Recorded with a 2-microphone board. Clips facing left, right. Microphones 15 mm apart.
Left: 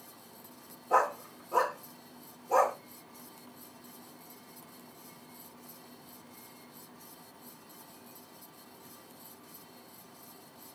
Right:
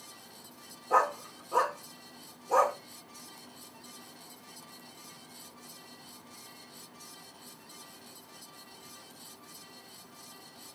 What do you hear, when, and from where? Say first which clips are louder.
0.9 s a dog barking: right 1 dB; 15° right (ahead or behind), 0.8 m